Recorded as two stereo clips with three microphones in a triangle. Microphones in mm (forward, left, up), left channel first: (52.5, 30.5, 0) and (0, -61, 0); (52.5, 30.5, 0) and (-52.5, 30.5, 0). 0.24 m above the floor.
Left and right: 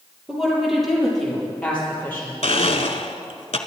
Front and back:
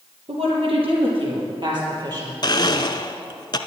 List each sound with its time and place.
0.3 s a woman speaking: 155° left, 5.5 m; by 2.3 s 130° left, 5.5 m
2.4 s a blender: 45° left, 0.8 m